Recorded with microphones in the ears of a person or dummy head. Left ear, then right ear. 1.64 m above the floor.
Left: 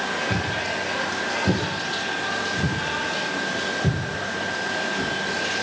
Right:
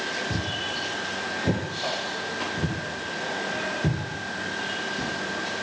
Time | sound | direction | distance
0.3 | footsteps | 60° right (ahead or behind) | 9 m